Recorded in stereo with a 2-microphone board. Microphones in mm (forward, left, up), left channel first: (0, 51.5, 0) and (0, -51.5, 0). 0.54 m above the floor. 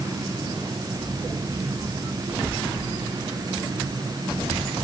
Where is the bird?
I don't hear a bird.